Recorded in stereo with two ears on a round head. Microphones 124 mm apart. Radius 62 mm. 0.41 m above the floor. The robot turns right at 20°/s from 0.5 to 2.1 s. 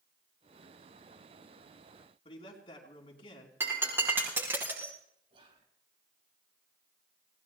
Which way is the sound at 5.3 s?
40° right (ahead or behind).